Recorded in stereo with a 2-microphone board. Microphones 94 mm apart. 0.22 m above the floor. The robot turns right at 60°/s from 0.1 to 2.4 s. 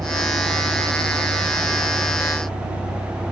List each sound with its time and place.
0.0 s a vehicle: 145° right; by 3.3 s 5° right